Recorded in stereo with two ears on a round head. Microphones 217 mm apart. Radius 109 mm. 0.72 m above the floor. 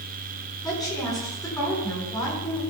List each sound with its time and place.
0.6 s a woman speaking: 15° left (ahead or behind), 8.5 m